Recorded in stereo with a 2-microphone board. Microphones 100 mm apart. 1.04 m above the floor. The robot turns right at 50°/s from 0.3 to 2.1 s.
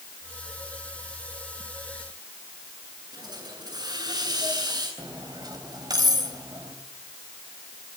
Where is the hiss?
45° right (ahead or behind), 9 m.